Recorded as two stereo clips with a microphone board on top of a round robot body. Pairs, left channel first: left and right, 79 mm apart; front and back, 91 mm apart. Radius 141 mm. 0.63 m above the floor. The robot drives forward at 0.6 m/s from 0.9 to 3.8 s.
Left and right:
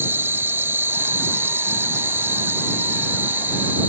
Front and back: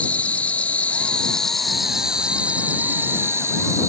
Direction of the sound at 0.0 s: 60° right.